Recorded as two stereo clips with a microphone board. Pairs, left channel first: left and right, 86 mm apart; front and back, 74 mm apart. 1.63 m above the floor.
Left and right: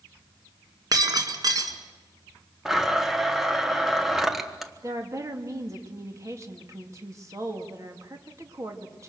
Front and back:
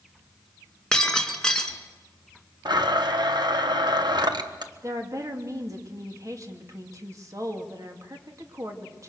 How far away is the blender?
About 1.4 m.